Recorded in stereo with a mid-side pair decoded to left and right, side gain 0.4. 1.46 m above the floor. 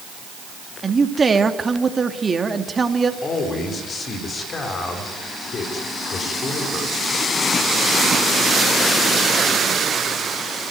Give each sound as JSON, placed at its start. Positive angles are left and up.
{"t": 0.8, "sound": "a man speaking", "azimuth_deg": -30, "distance_m": 2.5}
{"t": 3.2, "sound": "a man speaking", "azimuth_deg": 55, "distance_m": 4.5}